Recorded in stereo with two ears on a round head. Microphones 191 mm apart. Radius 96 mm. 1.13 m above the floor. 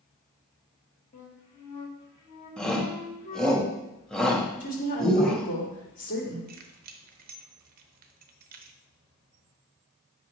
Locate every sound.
1.1 s a flute: 35° left (ahead or behind), 1.5 m
2.6 s a shout: 5° left (ahead or behind), 1.4 m
4.6 s a woman speaking: 60° left (ahead or behind), 2.5 m
6.5 s keys jangling: 45° right (ahead or behind), 0.7 m